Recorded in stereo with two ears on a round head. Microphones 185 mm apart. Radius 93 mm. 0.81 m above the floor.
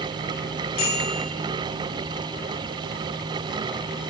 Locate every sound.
0.8 s a bicycle bell: 50° left (ahead or behind), 7.5 m